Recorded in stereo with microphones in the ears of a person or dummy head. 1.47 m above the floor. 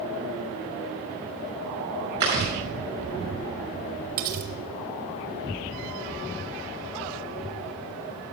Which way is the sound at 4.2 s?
50° right (ahead or behind).